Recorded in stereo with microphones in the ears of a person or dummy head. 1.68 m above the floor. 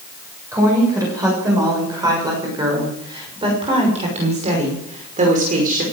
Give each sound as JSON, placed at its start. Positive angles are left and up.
{"t": 0.5, "sound": "a woman speaking", "side_deg": -10, "distance_m": 7.0}